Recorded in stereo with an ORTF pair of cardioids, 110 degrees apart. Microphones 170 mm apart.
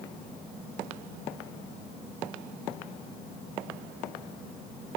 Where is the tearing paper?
I don't hear tearing paper.